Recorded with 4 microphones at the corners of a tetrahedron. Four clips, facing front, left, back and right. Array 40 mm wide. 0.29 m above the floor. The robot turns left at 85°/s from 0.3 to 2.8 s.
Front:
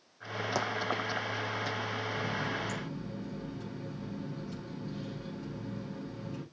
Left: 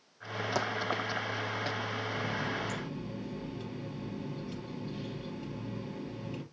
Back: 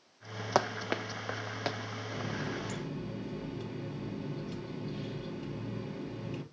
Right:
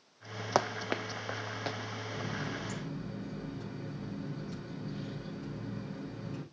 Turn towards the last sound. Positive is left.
turn(degrees=135)